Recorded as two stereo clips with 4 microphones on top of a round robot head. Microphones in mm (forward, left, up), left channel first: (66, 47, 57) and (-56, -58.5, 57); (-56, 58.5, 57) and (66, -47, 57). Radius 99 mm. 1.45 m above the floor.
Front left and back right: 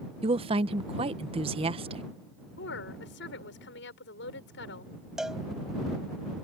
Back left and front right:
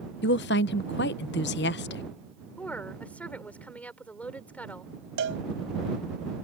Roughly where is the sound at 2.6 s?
Ahead left.